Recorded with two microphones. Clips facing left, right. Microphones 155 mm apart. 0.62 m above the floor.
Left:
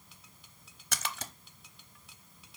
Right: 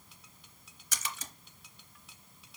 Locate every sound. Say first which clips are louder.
0.9 s a splash: left 3 dB; 70° left (ahead or behind), 0.8 m